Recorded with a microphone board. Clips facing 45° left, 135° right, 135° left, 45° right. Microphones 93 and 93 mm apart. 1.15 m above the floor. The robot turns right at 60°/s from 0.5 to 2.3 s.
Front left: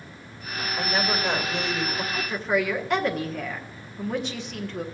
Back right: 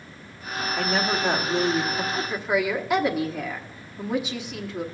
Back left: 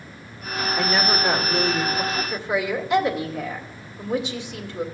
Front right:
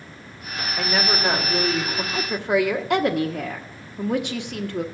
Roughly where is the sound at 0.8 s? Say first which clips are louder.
Back right 1 dB, back left 1 dB; behind right.